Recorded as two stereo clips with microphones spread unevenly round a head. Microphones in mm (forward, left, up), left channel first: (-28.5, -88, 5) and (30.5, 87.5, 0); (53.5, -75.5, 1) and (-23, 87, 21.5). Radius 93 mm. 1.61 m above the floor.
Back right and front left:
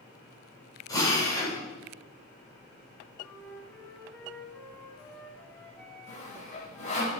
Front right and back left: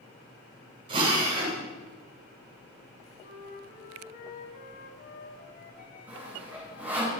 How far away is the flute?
About 4.5 m.